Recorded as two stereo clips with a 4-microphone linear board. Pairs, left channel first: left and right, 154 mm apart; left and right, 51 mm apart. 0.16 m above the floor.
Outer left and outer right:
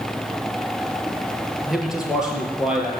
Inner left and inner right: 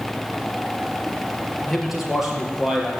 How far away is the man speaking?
About 3 m.